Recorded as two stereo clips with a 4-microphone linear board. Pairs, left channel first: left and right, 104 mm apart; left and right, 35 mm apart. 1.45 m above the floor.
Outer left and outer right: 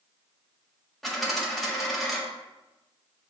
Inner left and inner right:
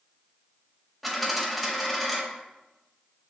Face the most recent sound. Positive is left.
turn(degrees=0)  # may be behind; listen again after turning